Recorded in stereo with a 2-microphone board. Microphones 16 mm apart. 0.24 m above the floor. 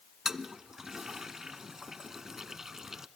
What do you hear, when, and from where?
0.2 s a toilet flushing: 30° right (ahead or behind), 1.1 m